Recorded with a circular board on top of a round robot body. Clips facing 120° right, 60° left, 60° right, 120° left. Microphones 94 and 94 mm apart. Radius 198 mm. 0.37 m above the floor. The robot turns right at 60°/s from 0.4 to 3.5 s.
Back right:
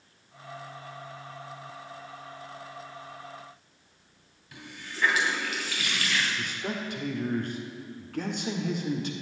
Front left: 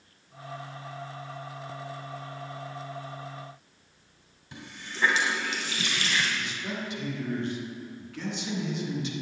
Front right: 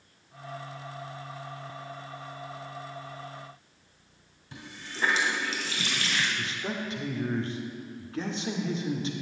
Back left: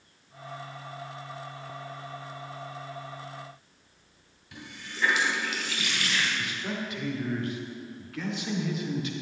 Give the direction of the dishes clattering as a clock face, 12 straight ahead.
No dishes clattering in this recording.